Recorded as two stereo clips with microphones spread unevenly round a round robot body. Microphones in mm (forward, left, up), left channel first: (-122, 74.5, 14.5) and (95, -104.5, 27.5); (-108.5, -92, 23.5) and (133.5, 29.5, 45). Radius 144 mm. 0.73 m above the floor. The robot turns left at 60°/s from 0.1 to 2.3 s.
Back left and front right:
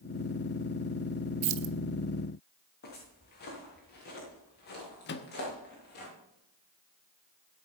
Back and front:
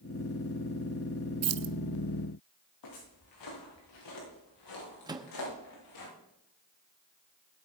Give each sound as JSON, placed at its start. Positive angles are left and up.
{"t": 1.4, "sound": "keys jangling", "azimuth_deg": -5, "distance_m": 0.9}
{"t": 2.8, "sound": "footsteps", "azimuth_deg": -165, "distance_m": 7.0}
{"t": 5.1, "sound": "a microwave", "azimuth_deg": 100, "distance_m": 1.0}